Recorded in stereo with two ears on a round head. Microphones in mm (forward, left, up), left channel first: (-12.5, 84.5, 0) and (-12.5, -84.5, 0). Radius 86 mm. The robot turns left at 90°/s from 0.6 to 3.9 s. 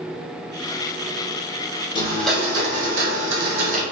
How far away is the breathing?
I don't hear breathing.